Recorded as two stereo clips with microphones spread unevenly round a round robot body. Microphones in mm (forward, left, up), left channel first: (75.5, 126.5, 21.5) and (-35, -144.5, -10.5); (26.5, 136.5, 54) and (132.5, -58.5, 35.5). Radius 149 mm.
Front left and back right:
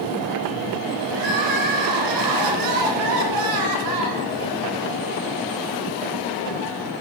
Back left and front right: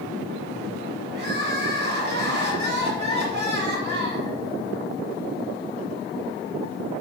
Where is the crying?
115° right, 1.5 m.